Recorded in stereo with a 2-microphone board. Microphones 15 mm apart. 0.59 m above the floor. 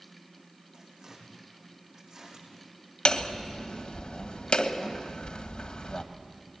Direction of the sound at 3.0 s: 65° left (ahead or behind).